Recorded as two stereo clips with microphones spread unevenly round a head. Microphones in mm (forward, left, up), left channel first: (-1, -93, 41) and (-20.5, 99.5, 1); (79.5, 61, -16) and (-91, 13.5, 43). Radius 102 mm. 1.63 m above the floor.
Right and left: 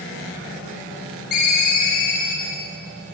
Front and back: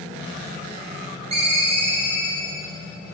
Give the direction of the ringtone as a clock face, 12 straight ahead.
4 o'clock.